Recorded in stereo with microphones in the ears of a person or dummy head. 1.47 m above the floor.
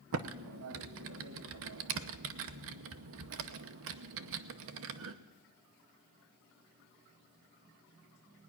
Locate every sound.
0.1 s typing on a keyboard: 70° right (ahead or behind), 0.8 m